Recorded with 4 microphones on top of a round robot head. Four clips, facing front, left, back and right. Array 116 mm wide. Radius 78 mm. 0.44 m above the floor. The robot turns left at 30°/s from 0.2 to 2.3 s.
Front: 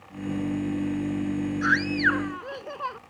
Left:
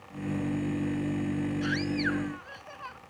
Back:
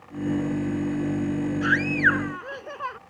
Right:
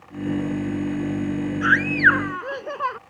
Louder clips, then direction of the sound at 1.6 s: Right 11 dB, back 1 dB; 55° right.